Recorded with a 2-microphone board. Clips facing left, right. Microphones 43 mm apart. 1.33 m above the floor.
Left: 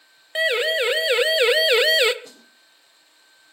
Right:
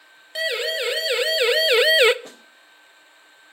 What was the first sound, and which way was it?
A siren, 25° left (ahead or behind).